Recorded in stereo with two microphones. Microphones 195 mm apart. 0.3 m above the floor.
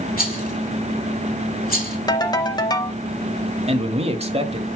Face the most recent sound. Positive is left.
turn(degrees=-30)  # may be behind; listen again after turning